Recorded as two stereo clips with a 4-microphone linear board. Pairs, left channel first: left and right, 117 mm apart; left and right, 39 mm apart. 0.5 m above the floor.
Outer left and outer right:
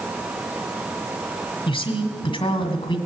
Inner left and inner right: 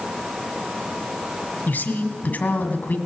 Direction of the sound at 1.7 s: 50° left (ahead or behind).